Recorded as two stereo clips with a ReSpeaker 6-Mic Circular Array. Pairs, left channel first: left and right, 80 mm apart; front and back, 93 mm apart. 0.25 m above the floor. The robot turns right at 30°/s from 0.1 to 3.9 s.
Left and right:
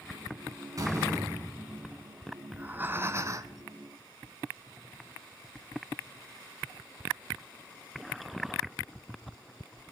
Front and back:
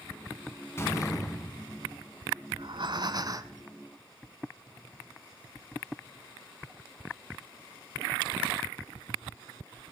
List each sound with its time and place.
0.8 s a door slam: 55° right, 1.9 m; by 2.0 s 20° right, 1.9 m
2.5 s breathing: 160° right, 0.6 m; by 3.6 s 130° right, 0.6 m